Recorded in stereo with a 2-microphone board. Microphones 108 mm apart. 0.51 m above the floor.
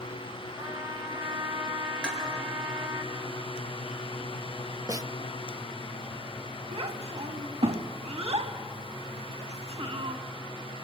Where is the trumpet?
40° right (ahead or behind), 3.5 m.